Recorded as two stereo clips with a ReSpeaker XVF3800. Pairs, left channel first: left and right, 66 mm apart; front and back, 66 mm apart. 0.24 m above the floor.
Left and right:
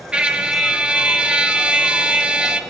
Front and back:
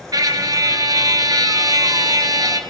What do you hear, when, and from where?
0.1 s a trumpet: 160° right, 2 m